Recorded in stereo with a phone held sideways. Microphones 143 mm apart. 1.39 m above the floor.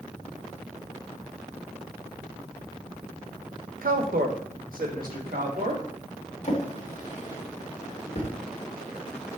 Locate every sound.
3.8 s a woman speaking: 75° right (ahead or behind), 0.8 m; by 5.8 s 70° right (ahead or behind), 2 m
6.4 s a drawer: 55° left (ahead or behind), 1.5 m